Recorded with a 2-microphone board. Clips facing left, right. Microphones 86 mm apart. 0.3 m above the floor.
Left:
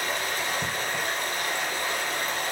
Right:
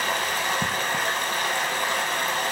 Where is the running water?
65° right (ahead or behind), 0.7 m.